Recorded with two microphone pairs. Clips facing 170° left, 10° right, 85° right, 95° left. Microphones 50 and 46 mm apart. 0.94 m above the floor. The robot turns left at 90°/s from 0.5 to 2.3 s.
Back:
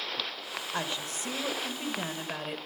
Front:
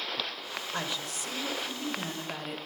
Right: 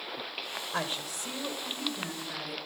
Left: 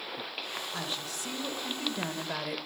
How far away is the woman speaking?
About 0.8 m.